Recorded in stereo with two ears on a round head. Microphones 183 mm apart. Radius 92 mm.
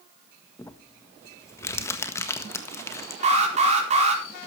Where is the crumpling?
15° left (ahead or behind), 1.6 m.